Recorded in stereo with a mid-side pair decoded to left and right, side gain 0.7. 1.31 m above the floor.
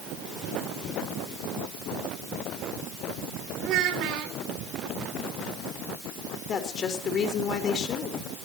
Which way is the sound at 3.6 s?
60° right.